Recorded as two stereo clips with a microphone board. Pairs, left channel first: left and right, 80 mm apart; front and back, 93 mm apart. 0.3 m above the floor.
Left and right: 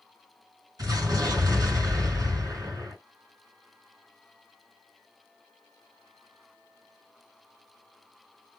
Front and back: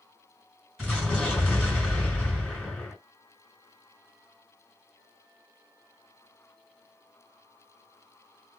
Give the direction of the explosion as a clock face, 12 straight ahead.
3 o'clock.